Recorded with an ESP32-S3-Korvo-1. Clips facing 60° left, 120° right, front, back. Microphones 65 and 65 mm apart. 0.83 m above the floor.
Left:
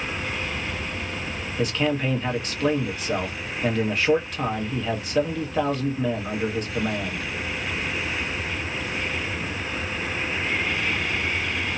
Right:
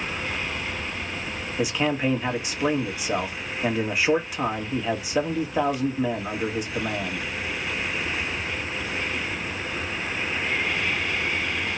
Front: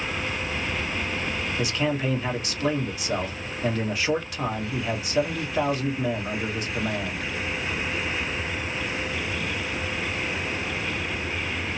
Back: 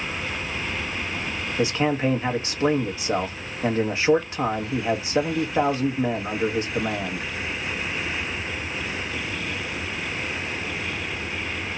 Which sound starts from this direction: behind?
A man speaking, at 1.6 s.